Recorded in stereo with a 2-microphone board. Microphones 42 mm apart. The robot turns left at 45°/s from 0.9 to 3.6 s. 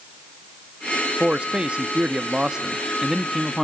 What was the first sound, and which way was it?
A man speaking, 25° right (ahead or behind).